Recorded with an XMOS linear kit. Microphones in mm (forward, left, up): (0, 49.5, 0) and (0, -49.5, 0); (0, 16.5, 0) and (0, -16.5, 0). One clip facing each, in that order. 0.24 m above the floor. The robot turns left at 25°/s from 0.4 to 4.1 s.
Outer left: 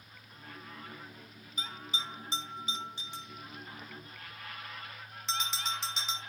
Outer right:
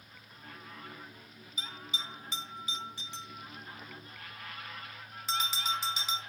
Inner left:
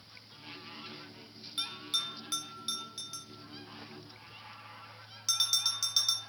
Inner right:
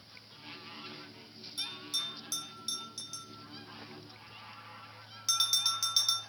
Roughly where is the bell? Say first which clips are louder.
Outer left 2 dB, inner left 3 dB; left.